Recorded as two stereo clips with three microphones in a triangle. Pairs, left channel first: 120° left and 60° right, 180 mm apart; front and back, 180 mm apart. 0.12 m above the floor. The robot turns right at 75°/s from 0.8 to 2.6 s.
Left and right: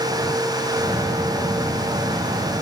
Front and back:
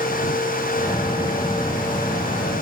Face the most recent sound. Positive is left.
No sound to turn to.